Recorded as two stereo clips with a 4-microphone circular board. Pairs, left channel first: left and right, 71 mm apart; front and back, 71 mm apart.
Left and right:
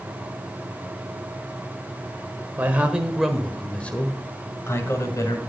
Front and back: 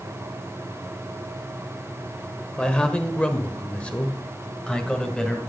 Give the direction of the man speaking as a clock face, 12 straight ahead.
2 o'clock.